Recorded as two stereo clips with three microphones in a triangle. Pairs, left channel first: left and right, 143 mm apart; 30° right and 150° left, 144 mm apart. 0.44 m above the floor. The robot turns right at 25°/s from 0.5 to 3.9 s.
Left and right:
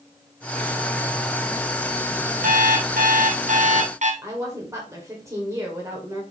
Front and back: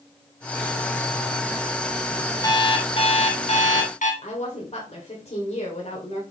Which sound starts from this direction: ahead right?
A woman speaking, at 4.2 s.